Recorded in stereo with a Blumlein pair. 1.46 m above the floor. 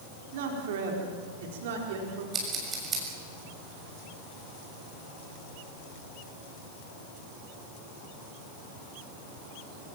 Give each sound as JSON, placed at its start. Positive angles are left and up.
{"t": 0.3, "sound": "a man speaking", "azimuth_deg": -55, "distance_m": 4.0}
{"t": 2.3, "sound": "scissors", "azimuth_deg": -20, "distance_m": 6.5}